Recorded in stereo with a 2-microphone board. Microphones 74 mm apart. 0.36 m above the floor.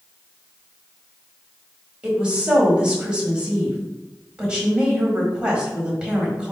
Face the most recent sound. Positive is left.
turn(degrees=-15)  # may be behind; listen again after turning